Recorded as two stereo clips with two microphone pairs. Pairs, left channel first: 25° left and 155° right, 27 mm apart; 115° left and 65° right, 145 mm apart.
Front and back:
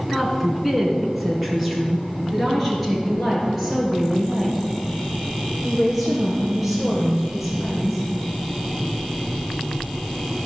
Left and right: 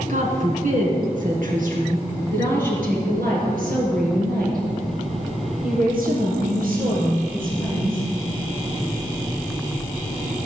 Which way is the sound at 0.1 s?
70° right.